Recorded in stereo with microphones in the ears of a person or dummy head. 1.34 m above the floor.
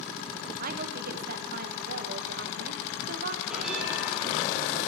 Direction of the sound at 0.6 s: 55° right (ahead or behind).